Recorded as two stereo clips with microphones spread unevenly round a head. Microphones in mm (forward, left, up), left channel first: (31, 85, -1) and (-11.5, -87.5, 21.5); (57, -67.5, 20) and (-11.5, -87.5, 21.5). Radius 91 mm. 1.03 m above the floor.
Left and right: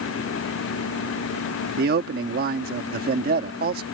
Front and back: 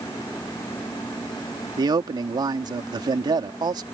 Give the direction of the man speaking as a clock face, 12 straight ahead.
5 o'clock.